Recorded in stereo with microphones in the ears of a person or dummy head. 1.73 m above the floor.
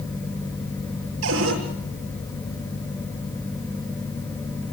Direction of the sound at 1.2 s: 85° right.